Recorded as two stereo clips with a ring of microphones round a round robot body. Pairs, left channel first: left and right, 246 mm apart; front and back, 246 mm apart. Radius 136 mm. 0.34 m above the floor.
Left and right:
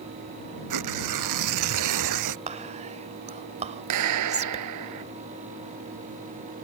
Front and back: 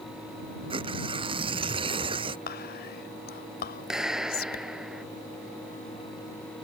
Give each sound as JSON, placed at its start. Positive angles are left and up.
{"t": 0.7, "sound": "tearing paper", "azimuth_deg": -105}
{"t": 2.5, "sound": "whispering", "azimuth_deg": -35}
{"t": 3.9, "sound": "a clap", "azimuth_deg": -90}